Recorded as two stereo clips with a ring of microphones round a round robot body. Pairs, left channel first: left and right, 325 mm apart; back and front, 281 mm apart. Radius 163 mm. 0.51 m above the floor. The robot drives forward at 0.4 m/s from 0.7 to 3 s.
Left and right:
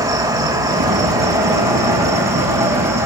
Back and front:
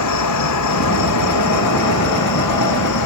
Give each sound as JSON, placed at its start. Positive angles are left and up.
{"t": 0.0, "sound": "an insect", "azimuth_deg": -165, "distance_m": 3.0}